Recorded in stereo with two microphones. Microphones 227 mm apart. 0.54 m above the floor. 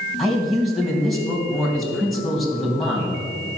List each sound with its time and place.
0.2 s a man speaking: centre (ahead or behind), 3 m